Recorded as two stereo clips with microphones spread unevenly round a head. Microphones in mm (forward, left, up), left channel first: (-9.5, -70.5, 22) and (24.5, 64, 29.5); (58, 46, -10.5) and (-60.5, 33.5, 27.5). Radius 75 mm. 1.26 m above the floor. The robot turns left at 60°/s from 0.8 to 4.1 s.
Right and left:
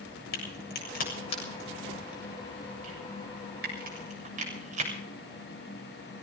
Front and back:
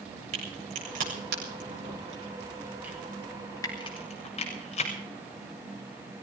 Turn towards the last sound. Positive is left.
turn(degrees=40)